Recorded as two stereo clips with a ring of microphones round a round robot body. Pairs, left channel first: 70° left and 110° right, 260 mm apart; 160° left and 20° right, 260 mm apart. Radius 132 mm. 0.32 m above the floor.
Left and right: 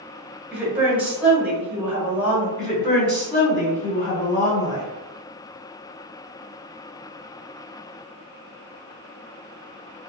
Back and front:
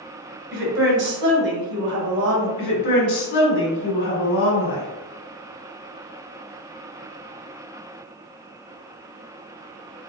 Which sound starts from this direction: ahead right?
A woman speaking, at 0.5 s.